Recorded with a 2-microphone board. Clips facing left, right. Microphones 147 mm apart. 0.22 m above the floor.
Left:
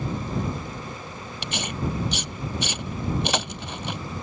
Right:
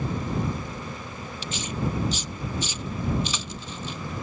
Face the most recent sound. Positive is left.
turn(degrees=70)  # may be behind; listen again after turning